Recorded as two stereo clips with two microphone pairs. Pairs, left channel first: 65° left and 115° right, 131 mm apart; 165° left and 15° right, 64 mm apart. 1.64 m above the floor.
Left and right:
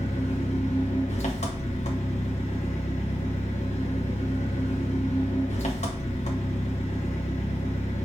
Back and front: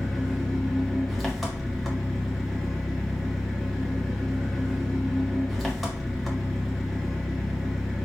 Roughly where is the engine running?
Left.